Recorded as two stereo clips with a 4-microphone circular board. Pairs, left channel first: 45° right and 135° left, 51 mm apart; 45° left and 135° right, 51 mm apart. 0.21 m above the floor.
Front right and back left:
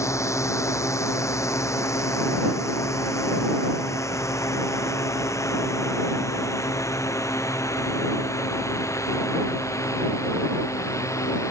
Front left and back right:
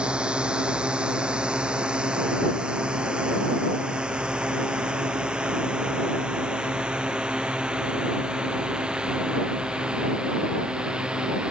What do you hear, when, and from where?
0.0 s a drone: 65° right; by 11.5 s 60° right